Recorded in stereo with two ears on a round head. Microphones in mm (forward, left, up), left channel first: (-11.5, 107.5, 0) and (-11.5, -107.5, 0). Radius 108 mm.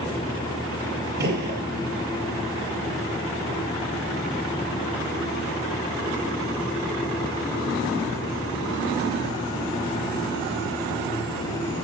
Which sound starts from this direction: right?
A gunshot, at 1.2 s.